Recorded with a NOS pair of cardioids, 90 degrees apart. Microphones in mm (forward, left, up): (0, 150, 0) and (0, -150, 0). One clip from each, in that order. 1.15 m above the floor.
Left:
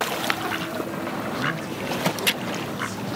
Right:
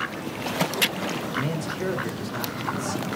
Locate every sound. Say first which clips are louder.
1.3 s a man speaking: left 1 dB; 70° right, 4 m; by 3.1 s 40° right, 4.5 m